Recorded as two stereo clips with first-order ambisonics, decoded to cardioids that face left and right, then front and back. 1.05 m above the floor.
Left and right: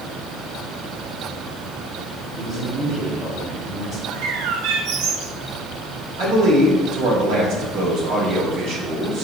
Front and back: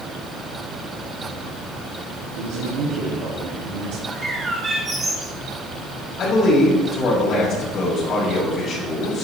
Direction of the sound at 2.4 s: 175° right.